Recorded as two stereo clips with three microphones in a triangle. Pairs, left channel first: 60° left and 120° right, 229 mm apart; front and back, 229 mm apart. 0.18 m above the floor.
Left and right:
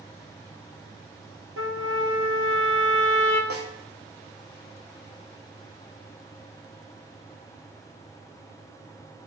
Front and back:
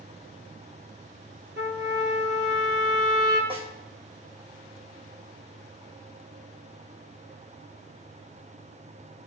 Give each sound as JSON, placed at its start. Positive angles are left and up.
{"t": 1.6, "sound": "a trumpet", "azimuth_deg": -145, "distance_m": 2.5}
{"t": 3.5, "sound": "a snare drum", "azimuth_deg": -115, "distance_m": 2.0}